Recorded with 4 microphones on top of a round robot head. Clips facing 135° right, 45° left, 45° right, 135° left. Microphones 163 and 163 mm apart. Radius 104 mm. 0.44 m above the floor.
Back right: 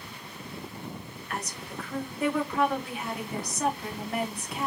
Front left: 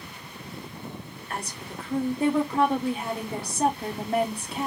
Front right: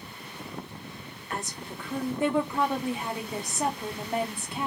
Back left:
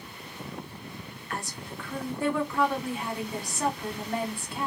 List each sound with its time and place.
1.3 s a woman speaking: 10° left, 1.0 m